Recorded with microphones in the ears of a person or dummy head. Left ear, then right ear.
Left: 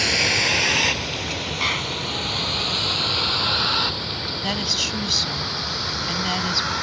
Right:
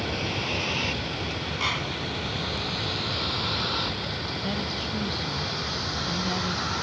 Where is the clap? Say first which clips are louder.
Left 4 dB; 10° left (ahead or behind).